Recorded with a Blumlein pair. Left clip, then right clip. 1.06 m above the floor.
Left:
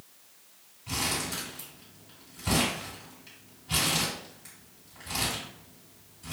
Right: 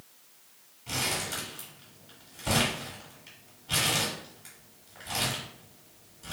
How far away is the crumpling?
About 2.0 m.